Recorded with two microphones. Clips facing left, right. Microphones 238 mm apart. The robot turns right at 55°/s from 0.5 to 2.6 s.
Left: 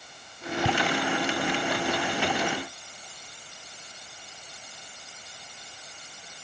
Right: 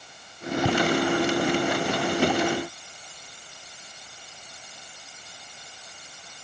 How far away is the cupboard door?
No cupboard door in this recording.